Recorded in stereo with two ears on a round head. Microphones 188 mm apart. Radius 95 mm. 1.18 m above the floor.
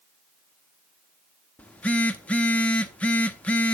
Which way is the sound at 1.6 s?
5° left (ahead or behind).